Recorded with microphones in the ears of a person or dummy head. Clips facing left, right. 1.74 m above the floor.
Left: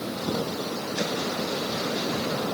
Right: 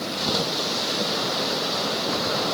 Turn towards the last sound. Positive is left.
No sound to turn to.